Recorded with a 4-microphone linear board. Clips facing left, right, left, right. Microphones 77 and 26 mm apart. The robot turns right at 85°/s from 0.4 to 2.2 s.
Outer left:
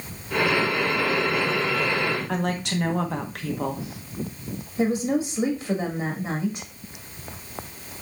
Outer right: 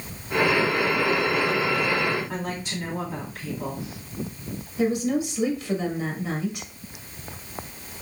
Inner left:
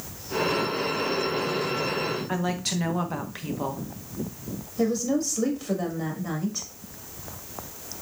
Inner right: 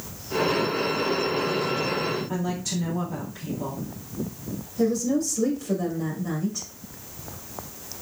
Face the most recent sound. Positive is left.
turn(degrees=30)  # may be behind; listen again after turning